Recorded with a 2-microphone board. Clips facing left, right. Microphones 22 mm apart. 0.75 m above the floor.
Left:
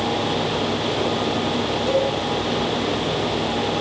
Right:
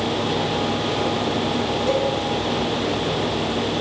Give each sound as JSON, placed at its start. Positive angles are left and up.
{"t": 1.9, "sound": "a cowbell", "side_deg": -20, "distance_m": 5.5}